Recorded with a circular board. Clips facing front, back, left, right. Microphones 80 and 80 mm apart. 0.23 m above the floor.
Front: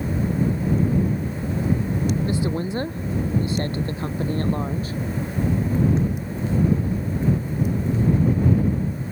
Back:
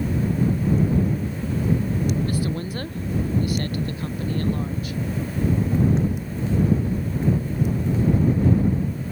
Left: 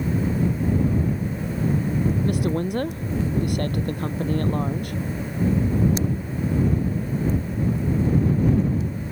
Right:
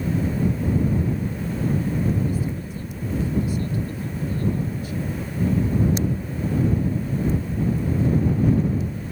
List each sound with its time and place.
2.2 s a woman speaking: 70° left; by 5.0 s 55° left